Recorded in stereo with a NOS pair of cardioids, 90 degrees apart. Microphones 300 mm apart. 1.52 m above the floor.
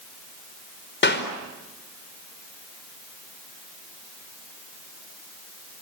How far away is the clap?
About 4.5 m.